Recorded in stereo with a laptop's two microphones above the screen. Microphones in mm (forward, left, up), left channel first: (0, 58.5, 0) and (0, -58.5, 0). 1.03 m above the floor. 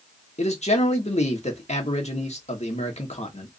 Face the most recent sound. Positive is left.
turn(degrees=70)  # may be behind; listen again after turning